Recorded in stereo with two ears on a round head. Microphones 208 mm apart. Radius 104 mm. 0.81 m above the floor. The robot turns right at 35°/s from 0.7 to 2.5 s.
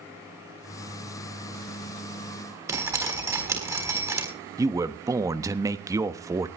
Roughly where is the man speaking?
Centre.